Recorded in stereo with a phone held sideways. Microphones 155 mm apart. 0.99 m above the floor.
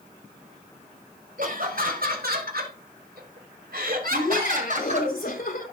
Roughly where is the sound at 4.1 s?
Left.